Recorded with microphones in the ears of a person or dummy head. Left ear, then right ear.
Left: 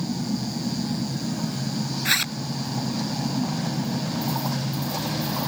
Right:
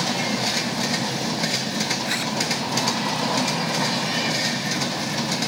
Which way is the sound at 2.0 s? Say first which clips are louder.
Left 2 dB; 15° left (ahead or behind).